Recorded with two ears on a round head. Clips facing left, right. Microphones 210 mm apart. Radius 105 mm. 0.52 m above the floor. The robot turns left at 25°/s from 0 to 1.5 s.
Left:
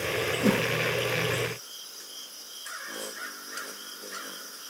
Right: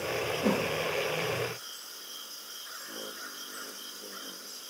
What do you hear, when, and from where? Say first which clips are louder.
0.4 s a whoosh: left 3 dB; 25° left (ahead or behind), 0.7 m; by 0.7 s 35° left (ahead or behind), 0.7 m